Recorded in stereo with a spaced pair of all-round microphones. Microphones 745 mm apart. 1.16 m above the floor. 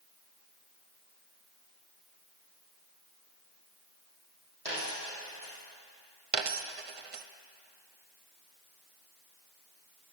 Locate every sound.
4.7 s a dropped coin: 50° right (ahead or behind), 4.5 m
6.3 s a dropped coin: 50° right (ahead or behind), 0.6 m